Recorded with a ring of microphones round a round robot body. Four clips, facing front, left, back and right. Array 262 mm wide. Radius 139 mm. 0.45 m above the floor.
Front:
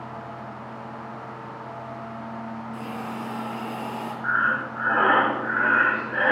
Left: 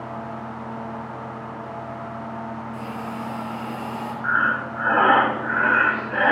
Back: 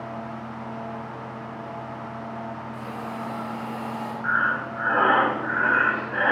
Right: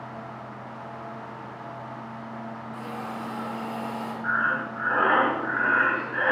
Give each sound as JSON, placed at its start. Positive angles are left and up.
{"t": 2.7, "sound": "a hiss", "azimuth_deg": 40, "distance_m": 2.5}
{"t": 4.2, "sound": "breathing", "azimuth_deg": 85, "distance_m": 1.9}